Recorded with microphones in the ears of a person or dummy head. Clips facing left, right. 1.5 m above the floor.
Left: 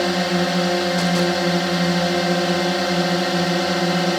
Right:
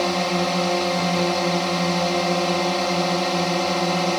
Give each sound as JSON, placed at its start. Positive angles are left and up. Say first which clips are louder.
{"t": 0.0, "sound": "a drone", "louder": "left 2 dB", "side_deg": 15}